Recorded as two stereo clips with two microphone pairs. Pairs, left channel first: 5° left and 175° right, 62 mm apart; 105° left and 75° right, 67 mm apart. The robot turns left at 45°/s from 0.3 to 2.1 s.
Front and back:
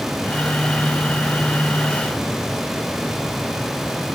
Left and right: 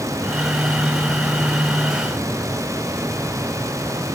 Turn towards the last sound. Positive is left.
No sound to turn to.